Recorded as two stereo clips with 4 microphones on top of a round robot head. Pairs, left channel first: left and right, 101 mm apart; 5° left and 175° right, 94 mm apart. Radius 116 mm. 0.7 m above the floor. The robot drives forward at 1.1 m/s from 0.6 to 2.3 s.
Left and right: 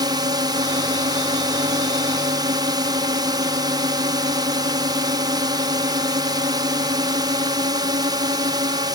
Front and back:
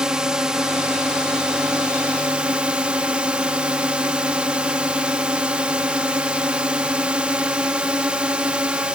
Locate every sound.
0.0 s a drone: 95° right; by 8.9 s 100° right